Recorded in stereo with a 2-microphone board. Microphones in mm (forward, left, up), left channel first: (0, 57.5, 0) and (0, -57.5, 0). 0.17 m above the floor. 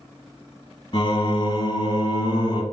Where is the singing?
50° left (ahead or behind), 1.0 m.